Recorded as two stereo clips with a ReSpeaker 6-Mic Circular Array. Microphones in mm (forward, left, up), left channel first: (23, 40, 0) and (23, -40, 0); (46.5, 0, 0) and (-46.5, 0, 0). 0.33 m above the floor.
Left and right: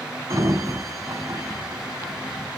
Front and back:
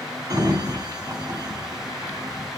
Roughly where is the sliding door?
Behind right.